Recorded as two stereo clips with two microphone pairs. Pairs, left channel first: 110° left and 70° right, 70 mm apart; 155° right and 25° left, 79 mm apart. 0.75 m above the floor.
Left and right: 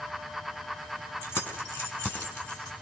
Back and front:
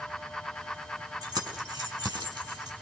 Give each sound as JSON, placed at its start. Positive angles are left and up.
{"t": 1.2, "sound": "keys jangling", "azimuth_deg": 45, "distance_m": 4.5}